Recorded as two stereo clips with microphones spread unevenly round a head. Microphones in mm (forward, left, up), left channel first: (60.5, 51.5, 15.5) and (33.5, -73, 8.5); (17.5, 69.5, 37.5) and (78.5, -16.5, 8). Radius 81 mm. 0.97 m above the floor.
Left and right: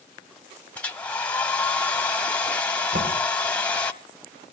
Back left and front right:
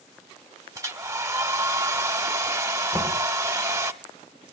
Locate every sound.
0.8 s a hair dryer: 10° left, 0.9 m
2.9 s knocking: 130° right, 5.5 m